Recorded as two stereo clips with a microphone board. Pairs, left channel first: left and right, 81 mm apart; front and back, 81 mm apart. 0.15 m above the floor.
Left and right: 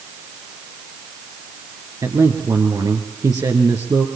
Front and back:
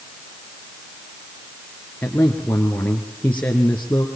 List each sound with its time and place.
2.0 s a man speaking: 65° right, 2.5 m